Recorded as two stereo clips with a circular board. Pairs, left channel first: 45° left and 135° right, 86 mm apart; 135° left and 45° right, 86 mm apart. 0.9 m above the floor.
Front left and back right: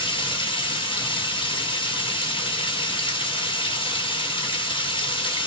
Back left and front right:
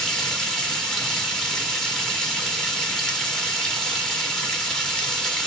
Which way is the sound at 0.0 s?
50° left.